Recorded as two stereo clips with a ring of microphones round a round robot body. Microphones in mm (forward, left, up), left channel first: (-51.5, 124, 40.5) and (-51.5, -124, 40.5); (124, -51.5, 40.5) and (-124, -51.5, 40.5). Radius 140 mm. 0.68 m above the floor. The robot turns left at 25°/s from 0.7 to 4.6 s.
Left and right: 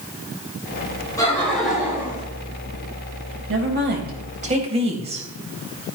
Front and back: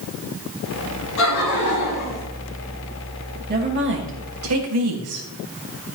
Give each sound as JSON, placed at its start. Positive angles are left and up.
{"t": 1.2, "sound": "laughter", "azimuth_deg": 10, "distance_m": 6.0}
{"t": 3.5, "sound": "a woman speaking", "azimuth_deg": -130, "distance_m": 3.5}